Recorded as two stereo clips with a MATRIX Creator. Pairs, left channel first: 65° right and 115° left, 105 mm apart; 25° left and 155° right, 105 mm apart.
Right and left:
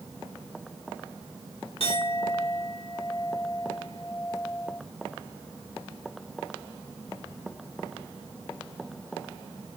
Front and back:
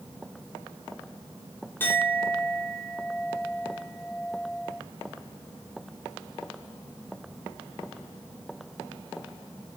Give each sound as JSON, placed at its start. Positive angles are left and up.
{"t": 1.8, "sound": "a clink", "azimuth_deg": -45, "distance_m": 2.5}